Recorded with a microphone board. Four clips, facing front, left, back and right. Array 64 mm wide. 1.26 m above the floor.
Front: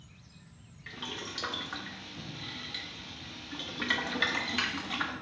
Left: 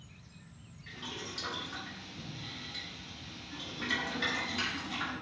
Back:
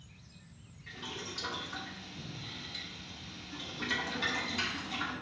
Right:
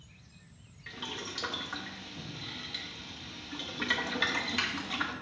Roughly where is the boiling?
Ahead right.